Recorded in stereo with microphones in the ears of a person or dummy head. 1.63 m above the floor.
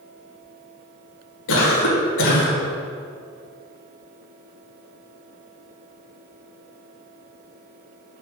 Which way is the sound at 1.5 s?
70° left (ahead or behind).